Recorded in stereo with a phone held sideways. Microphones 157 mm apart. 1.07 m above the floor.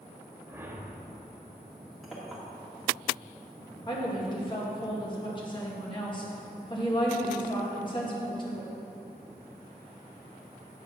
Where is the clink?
Centre (ahead or behind), 1.8 m.